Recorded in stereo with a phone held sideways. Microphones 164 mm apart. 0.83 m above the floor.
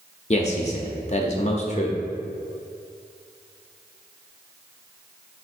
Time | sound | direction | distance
0.3 | a man speaking | 40° left (ahead or behind) | 0.5 m